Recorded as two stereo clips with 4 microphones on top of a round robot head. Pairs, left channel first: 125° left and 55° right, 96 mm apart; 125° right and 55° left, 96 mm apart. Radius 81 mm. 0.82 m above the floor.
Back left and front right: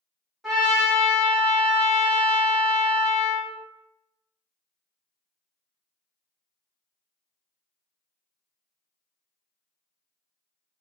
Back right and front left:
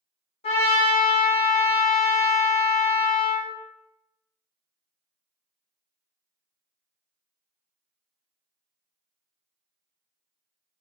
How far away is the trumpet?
About 1.7 m.